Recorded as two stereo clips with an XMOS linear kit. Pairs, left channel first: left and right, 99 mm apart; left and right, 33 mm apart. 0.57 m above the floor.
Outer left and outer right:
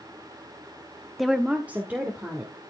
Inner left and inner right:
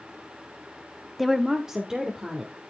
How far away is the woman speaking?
About 0.6 m.